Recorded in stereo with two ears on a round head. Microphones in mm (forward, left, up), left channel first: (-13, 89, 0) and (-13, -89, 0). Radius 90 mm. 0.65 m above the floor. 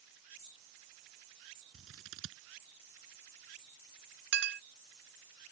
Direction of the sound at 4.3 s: 55° right (ahead or behind).